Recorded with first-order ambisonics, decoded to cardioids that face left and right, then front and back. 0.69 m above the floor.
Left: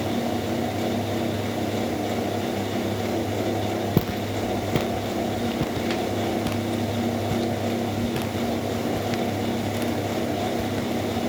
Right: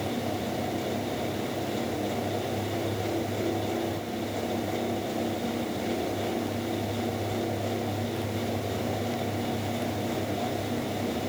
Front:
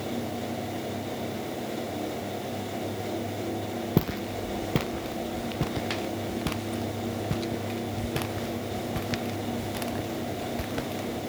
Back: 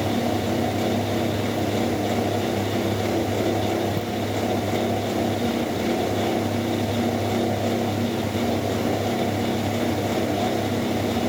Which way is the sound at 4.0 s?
60° left.